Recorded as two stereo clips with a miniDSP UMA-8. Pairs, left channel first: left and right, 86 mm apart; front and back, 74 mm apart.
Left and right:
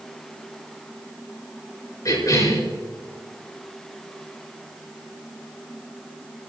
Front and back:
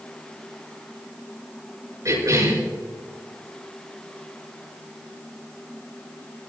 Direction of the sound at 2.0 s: 135° left.